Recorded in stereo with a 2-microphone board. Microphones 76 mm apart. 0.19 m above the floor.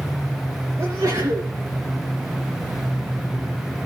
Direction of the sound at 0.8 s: 50° right (ahead or behind).